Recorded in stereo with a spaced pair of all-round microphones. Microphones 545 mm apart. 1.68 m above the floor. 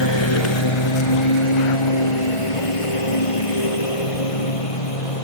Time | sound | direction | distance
0.0 | a lawn mower | 50° left (ahead or behind) | ?